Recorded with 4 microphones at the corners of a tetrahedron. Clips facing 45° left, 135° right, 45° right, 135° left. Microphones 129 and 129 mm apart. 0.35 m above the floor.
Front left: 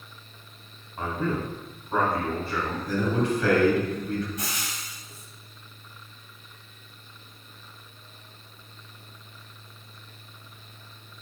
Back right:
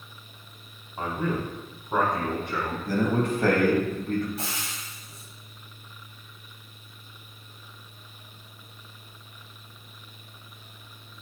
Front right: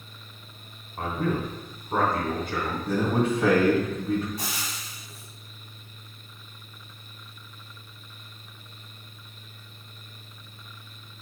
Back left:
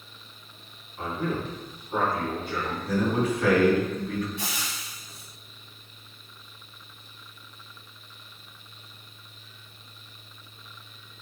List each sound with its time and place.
1.0 s a man speaking: 65° right, 3 m
2.9 s a man speaking: 100° right, 2.5 m
4.4 s frying: 80° right, 2 m